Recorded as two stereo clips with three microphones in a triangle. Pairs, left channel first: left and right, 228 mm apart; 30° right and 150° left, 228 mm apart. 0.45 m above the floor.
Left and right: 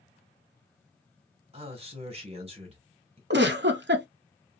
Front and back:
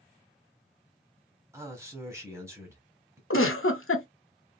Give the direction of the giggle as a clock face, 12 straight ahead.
2 o'clock.